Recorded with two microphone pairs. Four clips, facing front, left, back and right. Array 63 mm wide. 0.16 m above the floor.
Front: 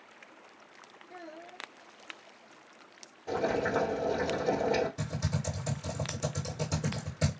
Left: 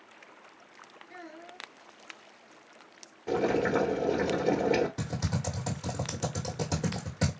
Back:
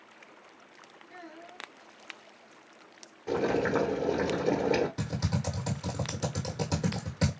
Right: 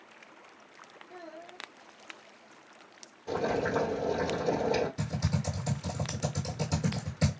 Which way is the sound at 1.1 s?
120° left.